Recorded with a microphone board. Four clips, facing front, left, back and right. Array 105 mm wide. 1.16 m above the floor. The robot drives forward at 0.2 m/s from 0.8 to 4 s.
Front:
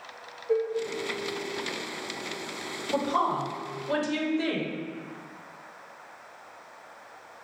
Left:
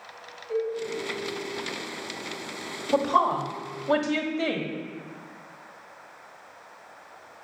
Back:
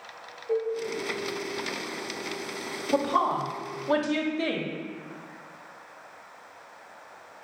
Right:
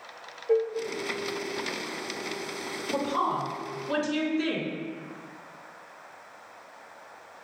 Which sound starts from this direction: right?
Dishes clattering, at 0.5 s.